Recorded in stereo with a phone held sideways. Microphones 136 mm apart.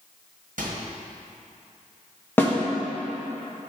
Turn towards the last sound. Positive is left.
turn(degrees=15)  # may be behind; listen again after turning